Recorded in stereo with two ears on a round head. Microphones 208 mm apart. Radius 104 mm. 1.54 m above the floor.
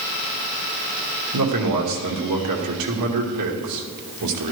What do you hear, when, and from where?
1.3 s a man speaking: 85° right, 2 m